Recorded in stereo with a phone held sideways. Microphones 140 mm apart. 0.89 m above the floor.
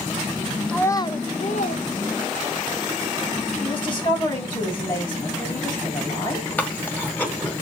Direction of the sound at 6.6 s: 10° left (ahead or behind).